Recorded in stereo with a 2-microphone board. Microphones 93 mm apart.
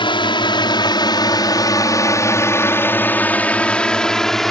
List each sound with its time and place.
0.0 s a drone: 60° left (ahead or behind); by 4.5 s 5° left (ahead or behind)